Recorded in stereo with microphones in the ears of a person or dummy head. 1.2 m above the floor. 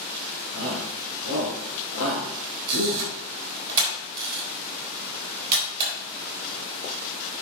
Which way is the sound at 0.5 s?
80° right.